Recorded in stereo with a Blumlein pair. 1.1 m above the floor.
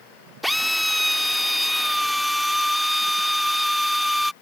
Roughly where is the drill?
Ahead.